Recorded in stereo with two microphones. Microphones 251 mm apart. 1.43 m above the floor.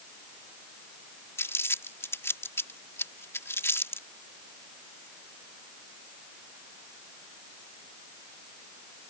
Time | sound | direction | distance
1.4 | crumpling | 10° left (ahead or behind) | ?